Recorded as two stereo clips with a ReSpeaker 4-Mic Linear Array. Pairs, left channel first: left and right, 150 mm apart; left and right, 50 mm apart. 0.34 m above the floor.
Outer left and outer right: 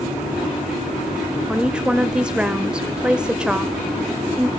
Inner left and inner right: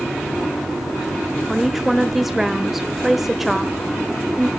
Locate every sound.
1.5 s a woman speaking: 5° right (ahead or behind), 1.2 m